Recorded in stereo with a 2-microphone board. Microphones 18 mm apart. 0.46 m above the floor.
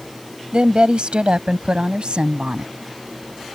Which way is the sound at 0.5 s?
65° right (ahead or behind).